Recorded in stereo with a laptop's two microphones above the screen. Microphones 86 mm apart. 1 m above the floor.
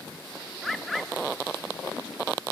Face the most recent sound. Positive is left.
turn(degrees=0)  # may be behind; listen again after turning